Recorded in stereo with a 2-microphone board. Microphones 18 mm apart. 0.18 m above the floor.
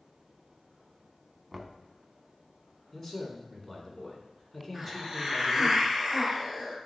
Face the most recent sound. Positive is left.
turn(degrees=-10)  # may be behind; listen again after turning